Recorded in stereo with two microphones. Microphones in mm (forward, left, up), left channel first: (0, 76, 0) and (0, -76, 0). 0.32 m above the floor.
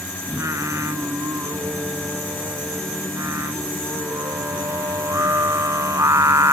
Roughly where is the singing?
Centre.